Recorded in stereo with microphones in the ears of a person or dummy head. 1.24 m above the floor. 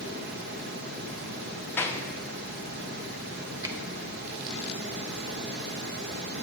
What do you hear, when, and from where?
0.0 s running water: 55° right (ahead or behind), 0.9 m
1.8 s a clap: 10° left (ahead or behind), 0.5 m
3.6 s a finger snap: 20° right (ahead or behind), 0.5 m